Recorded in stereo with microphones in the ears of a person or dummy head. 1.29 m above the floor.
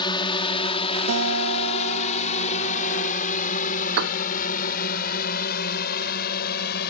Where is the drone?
25° left (ahead or behind); by 6.9 s 55° left (ahead or behind).